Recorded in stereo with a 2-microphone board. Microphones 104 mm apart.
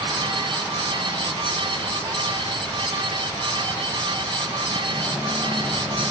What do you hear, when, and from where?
Only background noise.